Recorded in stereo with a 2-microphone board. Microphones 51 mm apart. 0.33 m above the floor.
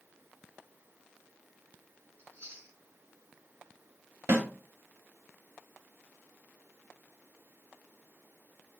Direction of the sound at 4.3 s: 70° right (ahead or behind).